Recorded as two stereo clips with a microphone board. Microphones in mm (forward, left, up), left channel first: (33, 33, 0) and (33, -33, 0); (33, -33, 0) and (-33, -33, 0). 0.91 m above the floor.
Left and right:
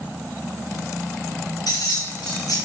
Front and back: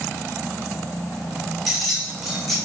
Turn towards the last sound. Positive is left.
turn(degrees=90)